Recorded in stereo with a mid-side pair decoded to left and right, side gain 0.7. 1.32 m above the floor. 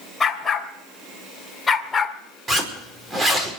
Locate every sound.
0.2 s a dog barking: 20° left, 3 m
2.5 s a zipper: 20° right, 5 m